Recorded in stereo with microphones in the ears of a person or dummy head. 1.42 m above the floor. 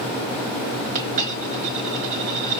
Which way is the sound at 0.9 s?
40° right (ahead or behind).